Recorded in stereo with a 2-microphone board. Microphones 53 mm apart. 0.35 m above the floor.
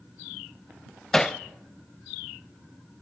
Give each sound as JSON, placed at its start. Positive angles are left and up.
{"t": 1.1, "sound": "hammering", "side_deg": 10, "distance_m": 0.6}